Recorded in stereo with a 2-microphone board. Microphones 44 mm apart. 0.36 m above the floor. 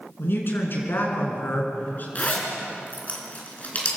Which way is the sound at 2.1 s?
35° left (ahead or behind).